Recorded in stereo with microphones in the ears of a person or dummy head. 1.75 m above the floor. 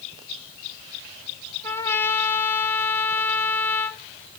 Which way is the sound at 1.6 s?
15° left (ahead or behind).